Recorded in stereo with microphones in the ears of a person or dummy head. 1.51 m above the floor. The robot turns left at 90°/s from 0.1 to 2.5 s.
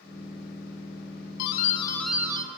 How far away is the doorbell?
About 0.8 m.